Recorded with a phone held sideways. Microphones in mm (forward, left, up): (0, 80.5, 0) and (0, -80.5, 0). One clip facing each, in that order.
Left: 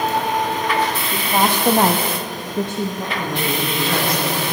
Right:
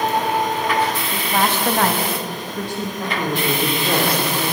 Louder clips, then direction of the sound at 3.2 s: Right 3 dB; 30° right (ahead or behind).